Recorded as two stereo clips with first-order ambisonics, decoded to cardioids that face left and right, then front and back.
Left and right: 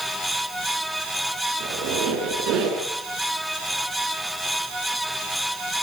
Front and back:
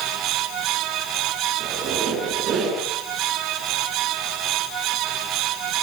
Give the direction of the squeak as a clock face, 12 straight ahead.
4 o'clock.